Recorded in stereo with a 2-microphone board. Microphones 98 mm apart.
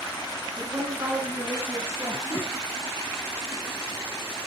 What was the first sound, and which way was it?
A woman speaking, 40° right (ahead or behind).